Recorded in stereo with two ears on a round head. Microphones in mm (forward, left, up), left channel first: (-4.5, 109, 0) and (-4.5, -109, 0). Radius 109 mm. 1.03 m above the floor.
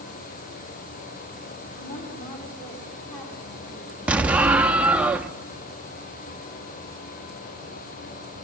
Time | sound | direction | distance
1.8 | a woman speaking | 25° left (ahead or behind) | 3 m
4.1 | an explosion | 5° right (ahead or behind) | 0.6 m